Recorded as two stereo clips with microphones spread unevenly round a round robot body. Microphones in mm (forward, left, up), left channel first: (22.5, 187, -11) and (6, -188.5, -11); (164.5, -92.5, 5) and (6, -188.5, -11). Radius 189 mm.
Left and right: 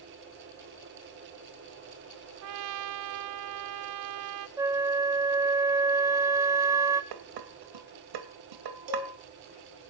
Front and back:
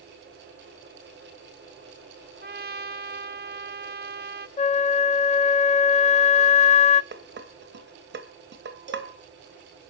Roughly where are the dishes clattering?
Behind right.